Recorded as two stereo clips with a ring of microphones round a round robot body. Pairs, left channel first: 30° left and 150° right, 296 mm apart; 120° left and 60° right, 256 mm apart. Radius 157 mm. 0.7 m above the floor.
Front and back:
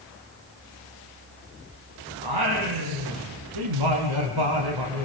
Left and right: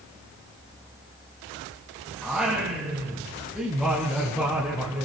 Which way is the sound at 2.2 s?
150° right.